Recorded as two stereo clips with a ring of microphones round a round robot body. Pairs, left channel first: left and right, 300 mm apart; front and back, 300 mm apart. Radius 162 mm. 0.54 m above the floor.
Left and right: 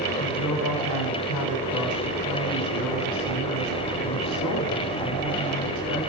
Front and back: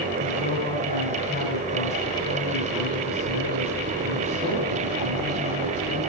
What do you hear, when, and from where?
0.2 s a woman speaking: 70° left, 2.0 m